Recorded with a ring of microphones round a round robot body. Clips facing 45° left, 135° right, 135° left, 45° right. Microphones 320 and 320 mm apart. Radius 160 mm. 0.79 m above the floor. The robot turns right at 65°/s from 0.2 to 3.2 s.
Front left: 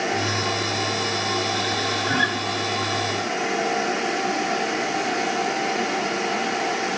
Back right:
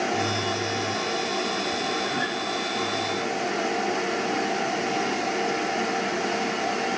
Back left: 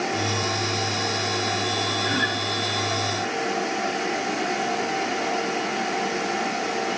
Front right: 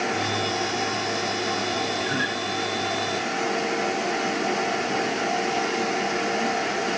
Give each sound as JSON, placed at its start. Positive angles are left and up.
{"t": 2.0, "sound": "a guitar", "azimuth_deg": 65, "distance_m": 7.5}